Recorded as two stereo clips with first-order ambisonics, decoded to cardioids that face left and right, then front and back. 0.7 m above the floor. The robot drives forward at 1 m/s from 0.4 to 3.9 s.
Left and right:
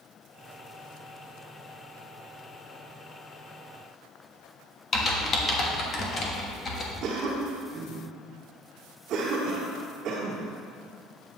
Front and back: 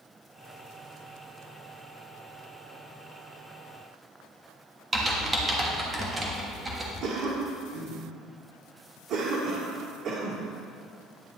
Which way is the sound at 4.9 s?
120° left.